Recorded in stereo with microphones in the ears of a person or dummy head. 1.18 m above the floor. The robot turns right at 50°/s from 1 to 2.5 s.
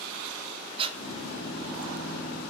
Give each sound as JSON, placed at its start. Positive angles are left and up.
{"t": 0.8, "sound": "breathing", "side_deg": -30, "distance_m": 1.3}